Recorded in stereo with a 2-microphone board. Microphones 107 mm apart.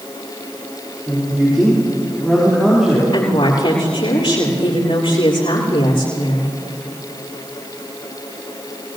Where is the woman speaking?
60° left (ahead or behind), 7 m.